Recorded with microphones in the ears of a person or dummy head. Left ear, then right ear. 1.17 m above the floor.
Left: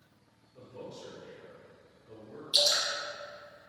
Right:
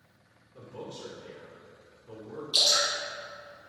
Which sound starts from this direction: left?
Dripping, at 2.5 s.